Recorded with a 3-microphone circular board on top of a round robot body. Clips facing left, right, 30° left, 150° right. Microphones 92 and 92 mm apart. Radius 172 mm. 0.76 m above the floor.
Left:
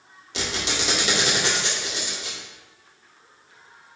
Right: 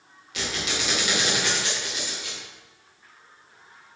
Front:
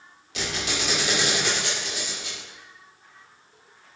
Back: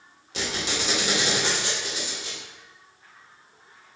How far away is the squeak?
About 1.7 m.